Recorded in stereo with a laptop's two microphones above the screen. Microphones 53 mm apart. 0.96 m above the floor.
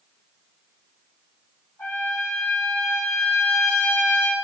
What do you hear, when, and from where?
1.8 s a trumpet: 55° left (ahead or behind), 6 m